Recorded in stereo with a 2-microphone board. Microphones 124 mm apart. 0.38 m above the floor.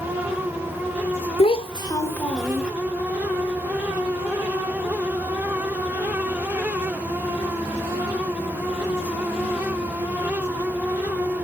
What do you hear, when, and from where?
1.4 s a child speaking: 50° left (ahead or behind), 1.0 m; by 2.7 s 10° right (ahead or behind), 1.2 m